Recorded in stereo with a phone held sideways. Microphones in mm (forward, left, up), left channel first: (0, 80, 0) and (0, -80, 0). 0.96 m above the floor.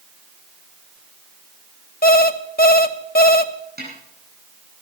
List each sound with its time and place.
2.0 s an alarm clock: 75° left (ahead or behind), 1.0 m
3.8 s a snare drum: 80° right, 8 m